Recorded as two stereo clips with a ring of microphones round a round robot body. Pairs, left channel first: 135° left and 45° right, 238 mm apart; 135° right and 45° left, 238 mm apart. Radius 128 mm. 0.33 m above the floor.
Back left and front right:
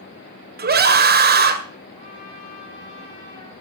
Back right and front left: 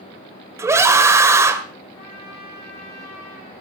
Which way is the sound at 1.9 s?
155° right.